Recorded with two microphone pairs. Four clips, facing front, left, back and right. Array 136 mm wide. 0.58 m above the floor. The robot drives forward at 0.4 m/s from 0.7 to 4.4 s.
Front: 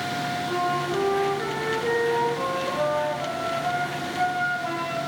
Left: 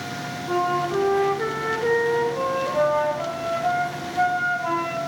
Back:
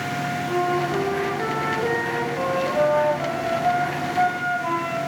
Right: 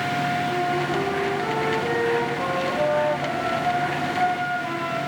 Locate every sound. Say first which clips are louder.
0.5 s a flute: left 1 dB, back 4 dB; 100° left, 1.0 m; by 5.0 s 150° left, 1.9 m